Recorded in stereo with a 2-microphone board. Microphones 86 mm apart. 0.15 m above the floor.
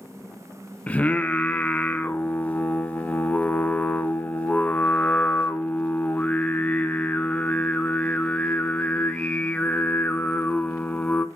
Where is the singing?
15° left (ahead or behind), 0.6 m.